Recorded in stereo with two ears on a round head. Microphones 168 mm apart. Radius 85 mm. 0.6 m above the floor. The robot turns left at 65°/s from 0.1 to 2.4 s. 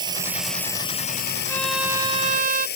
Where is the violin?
15° left; by 2.7 s 45° right.